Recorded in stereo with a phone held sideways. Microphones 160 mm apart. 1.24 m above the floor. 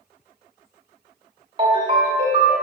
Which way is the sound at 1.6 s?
30° right (ahead or behind).